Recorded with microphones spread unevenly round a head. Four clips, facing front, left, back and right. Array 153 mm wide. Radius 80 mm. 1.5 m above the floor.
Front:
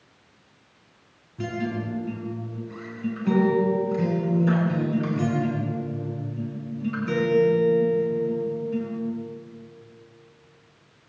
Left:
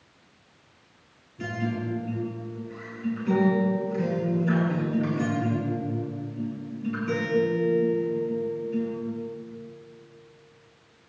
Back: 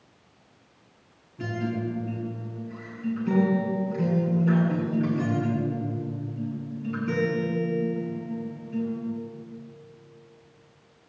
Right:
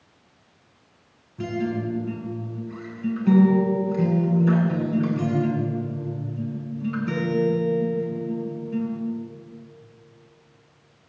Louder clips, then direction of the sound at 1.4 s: Right 4 dB, front 1 dB; 25° right.